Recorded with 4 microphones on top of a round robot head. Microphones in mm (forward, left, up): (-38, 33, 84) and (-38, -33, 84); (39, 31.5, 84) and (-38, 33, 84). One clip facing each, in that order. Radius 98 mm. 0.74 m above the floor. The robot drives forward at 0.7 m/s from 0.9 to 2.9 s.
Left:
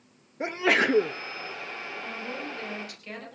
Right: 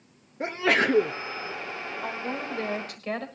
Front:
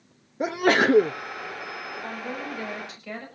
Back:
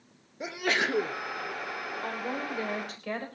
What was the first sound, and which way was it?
A sneeze, 5° left.